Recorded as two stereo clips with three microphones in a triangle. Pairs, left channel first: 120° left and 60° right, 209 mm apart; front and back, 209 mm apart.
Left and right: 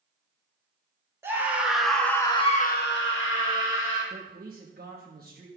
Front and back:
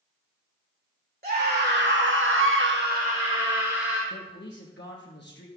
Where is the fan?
I don't hear a fan.